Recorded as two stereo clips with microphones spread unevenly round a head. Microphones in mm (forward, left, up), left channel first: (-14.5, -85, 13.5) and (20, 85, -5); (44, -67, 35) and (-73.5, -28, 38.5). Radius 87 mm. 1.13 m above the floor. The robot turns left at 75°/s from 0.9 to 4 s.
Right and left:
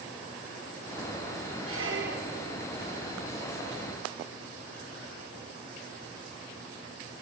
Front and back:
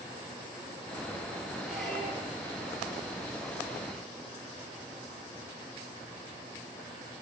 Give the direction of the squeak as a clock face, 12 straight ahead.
9 o'clock.